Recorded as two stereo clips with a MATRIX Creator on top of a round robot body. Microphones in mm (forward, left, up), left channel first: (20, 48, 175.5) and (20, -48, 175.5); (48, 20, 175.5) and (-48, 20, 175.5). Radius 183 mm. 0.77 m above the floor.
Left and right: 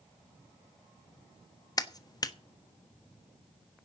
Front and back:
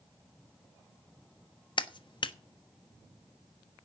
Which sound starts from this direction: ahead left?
A clap, at 1.8 s.